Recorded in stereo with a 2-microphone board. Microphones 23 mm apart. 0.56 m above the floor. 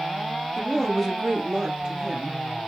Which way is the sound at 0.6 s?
20° left (ahead or behind).